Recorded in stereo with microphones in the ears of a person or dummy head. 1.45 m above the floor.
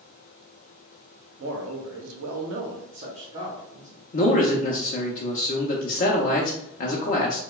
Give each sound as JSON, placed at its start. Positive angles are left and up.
{"t": 1.4, "sound": "a man speaking", "side_deg": -70, "distance_m": 0.9}
{"t": 4.1, "sound": "a man speaking", "side_deg": 45, "distance_m": 0.5}